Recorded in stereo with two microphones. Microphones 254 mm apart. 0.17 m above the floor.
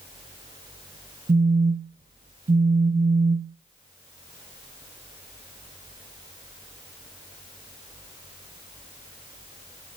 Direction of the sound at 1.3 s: 35° right (ahead or behind).